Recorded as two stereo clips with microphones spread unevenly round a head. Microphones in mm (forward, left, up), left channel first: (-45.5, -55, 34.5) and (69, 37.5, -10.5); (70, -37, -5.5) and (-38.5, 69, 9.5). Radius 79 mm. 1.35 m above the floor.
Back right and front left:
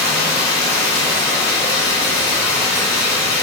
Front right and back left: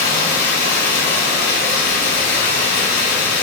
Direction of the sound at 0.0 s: 70° right.